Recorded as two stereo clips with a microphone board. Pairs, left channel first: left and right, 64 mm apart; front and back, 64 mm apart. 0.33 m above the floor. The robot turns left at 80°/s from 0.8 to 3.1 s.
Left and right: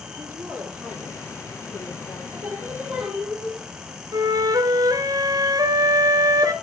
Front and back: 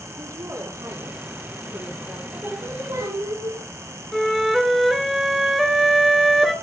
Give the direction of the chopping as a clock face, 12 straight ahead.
No chopping in this recording.